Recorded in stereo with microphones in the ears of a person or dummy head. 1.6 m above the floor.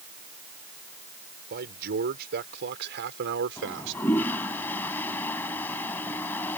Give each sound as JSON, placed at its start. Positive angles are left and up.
{"t": 1.5, "sound": "a man speaking", "side_deg": -50}
{"t": 3.6, "sound": "a toilet flushing", "side_deg": 15}